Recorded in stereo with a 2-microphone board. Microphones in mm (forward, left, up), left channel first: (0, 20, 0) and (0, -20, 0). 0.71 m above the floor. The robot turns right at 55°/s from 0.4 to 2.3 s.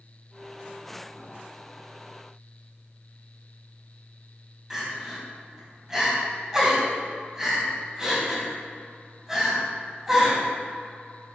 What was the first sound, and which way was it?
Crying, 15° right (ahead or behind).